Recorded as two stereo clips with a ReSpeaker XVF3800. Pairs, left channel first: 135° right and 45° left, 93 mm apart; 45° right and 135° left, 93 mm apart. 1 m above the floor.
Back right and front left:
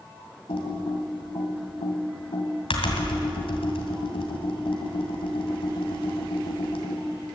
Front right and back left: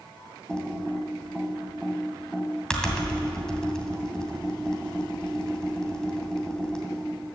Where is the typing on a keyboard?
125° right, 2.5 m.